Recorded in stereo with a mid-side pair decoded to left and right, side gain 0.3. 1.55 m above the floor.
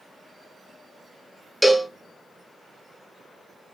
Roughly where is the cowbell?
Ahead.